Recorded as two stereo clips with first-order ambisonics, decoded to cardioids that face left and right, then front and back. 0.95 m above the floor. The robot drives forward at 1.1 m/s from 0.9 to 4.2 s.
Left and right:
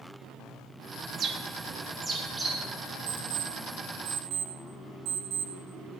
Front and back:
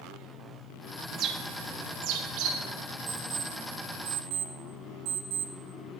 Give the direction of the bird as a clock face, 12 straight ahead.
4 o'clock.